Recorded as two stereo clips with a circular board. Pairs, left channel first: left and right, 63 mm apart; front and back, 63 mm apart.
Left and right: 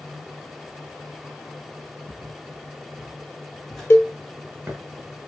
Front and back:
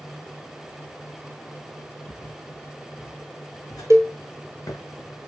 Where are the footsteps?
30° left, 2.0 m; by 4.8 s 35° right, 1.1 m.